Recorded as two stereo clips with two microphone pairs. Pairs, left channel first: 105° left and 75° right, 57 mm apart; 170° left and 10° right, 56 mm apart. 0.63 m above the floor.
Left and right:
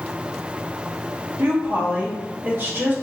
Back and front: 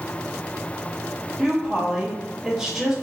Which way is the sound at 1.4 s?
85° right.